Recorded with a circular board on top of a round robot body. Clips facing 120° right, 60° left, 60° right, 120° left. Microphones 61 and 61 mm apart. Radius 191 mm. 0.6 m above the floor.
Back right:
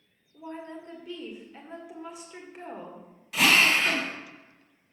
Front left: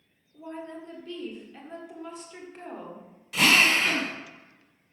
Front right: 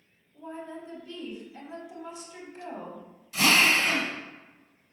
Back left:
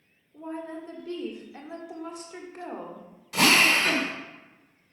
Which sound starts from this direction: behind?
A woman speaking, at 0.3 s.